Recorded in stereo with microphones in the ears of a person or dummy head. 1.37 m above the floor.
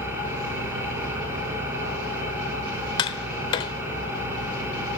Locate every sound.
0.0 s an engine running: 15° right (ahead or behind), 8.5 m
3.0 s tapping: 30° left (ahead or behind), 1.2 m